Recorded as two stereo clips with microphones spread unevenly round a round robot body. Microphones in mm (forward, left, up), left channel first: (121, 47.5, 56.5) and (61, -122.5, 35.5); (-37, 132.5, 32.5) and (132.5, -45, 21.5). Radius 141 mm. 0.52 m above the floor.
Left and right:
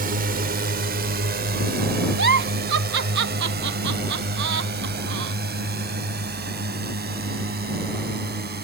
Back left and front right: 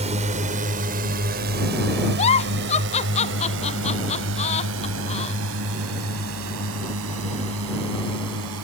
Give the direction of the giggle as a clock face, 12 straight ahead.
5 o'clock.